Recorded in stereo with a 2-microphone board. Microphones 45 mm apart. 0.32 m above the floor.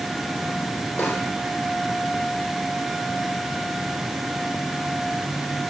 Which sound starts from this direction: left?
A snare drum, at 1.0 s.